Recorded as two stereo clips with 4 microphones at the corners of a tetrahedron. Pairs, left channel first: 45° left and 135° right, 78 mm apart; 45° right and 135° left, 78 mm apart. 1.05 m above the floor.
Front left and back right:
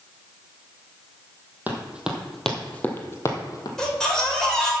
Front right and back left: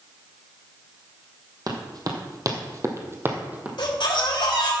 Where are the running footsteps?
160° left, 1.8 m; by 3.7 s 70° left, 1.8 m.